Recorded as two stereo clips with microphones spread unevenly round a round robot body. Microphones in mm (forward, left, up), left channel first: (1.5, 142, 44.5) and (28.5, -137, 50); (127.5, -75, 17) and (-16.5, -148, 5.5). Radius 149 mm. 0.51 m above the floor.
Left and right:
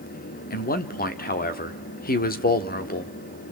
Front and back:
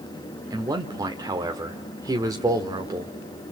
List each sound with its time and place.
0.5 s a man speaking: 145° left, 1.1 m